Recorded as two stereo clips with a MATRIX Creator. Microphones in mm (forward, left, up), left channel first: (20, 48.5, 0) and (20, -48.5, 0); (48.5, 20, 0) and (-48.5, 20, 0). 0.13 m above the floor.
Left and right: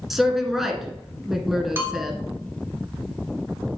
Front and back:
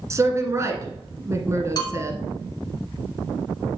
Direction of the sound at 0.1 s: 175° right.